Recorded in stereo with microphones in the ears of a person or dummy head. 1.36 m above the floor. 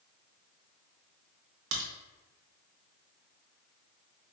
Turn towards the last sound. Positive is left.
turn(degrees=-70)  # may be behind; listen again after turning